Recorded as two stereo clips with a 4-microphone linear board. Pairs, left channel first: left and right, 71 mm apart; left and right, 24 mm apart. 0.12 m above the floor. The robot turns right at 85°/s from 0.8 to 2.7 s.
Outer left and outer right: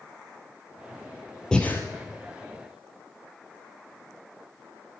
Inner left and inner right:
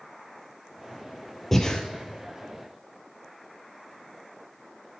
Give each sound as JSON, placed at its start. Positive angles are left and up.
{"t": 1.5, "sound": "breathing", "side_deg": 10, "distance_m": 1.7}